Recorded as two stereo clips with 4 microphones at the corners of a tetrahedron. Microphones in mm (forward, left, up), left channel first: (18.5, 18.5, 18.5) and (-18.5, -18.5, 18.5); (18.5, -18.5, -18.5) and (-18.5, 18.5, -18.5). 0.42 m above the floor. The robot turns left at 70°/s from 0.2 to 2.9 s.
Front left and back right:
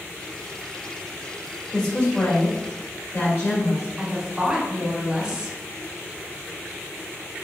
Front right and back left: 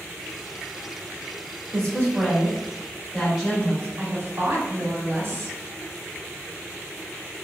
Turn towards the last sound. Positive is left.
turn(degrees=155)